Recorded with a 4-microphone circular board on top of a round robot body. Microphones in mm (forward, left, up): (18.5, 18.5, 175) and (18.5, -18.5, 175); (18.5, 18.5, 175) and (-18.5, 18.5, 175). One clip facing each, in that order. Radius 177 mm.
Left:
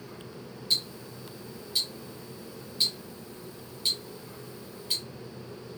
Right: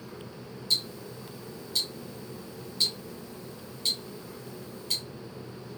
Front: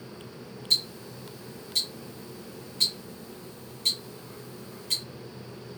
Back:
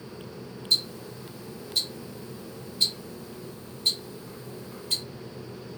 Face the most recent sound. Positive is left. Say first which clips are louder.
# even, back 1 dB
turn(degrees=10)